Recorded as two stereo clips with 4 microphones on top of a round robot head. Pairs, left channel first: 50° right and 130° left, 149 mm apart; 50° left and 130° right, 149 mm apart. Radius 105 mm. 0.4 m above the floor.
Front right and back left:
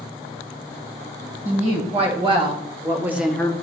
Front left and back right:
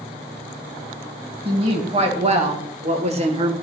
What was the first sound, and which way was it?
A woman speaking, 175° left.